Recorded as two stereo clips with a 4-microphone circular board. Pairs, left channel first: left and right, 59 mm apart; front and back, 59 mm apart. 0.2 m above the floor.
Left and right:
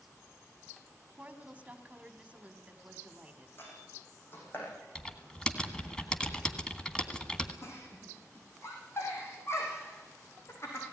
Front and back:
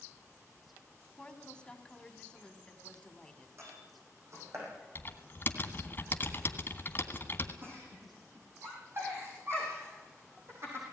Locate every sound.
1.2 s a woman speaking: 55° right, 1.5 m
3.6 s a door slam: 145° left, 8.5 m
5.0 s typing on a keyboard: 20° left, 1.7 m
7.6 s a giggle: 135° left, 6.5 m